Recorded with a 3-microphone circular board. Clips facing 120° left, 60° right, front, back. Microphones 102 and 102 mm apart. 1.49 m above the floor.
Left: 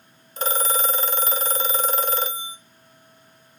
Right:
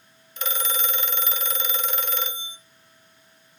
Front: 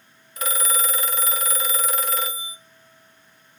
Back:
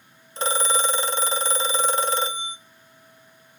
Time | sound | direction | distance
0.4 | a phone ringing | 140° left | 0.7 m